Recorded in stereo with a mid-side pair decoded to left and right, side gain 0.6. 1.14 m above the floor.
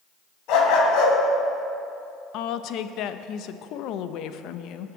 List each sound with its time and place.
0.5 s a dog barking: 70° left, 3.5 m
2.3 s a woman speaking: 65° left, 0.8 m